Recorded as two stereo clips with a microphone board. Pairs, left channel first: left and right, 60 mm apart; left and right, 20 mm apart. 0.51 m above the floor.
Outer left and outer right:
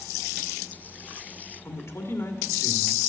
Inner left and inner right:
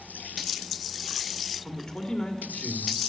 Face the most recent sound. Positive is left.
turn(degrees=50)  # may be behind; listen again after turning